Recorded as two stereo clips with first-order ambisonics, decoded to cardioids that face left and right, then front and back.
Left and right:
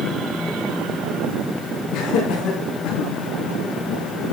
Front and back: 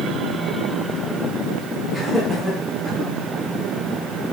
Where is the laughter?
110° left, 5.5 m; by 3.1 s 115° left, 5 m.